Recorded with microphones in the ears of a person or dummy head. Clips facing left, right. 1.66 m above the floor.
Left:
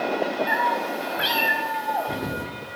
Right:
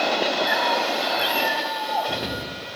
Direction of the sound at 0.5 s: Centre (ahead or behind).